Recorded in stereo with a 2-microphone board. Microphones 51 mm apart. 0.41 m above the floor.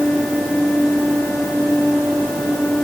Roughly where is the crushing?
No crushing in this recording.